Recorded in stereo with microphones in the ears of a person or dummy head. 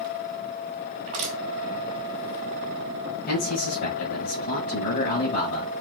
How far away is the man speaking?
About 2 m.